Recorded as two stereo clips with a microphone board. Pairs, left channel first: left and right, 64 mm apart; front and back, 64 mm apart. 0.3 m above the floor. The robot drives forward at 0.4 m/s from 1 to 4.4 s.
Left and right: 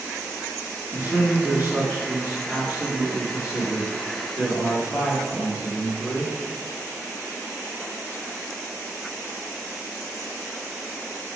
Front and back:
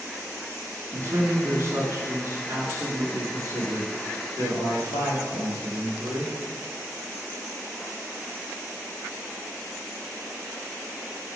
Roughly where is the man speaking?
Behind right.